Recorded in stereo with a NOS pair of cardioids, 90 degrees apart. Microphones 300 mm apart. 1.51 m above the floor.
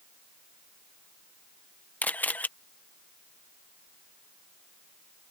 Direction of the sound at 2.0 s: 5° left.